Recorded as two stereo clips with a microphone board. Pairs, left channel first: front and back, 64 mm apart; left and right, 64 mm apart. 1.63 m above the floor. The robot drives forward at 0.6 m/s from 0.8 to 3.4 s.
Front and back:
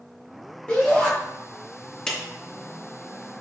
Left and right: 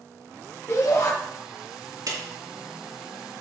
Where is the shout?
70° left, 2.5 m.